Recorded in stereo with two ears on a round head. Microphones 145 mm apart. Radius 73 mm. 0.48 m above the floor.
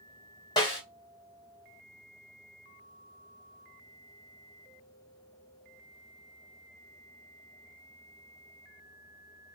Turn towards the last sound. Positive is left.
turn(degrees=25)  # may be behind; listen again after turning